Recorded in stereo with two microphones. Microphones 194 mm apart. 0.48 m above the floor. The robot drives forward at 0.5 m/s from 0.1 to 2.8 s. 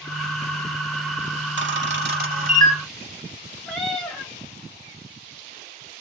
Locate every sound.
1.6 s a camera shutter: 75° right (ahead or behind), 0.7 m; by 2.8 s 40° right (ahead or behind), 1.0 m
3.7 s a cat meowing: 5° left (ahead or behind), 0.9 m